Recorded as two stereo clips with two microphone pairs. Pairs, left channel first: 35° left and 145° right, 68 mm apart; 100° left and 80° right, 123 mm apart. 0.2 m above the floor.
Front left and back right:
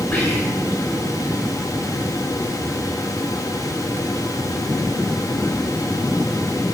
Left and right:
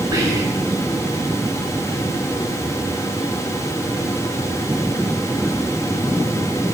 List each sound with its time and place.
0.1 s whispering: 45° right, 1.8 m